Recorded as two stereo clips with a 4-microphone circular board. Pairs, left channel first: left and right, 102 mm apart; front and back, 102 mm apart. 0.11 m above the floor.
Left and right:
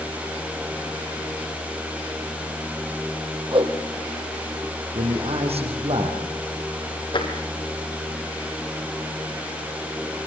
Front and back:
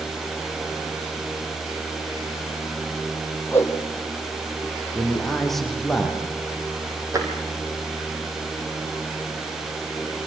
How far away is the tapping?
About 3 m.